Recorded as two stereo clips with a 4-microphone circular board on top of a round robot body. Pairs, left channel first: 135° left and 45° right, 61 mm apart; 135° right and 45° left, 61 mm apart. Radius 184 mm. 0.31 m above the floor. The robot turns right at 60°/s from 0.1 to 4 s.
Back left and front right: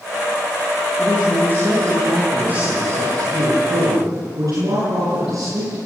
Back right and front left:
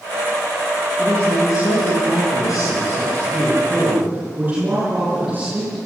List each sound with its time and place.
1.0 s a man speaking: 165° left, 8.5 m; by 5.8 s 15° right, 8.5 m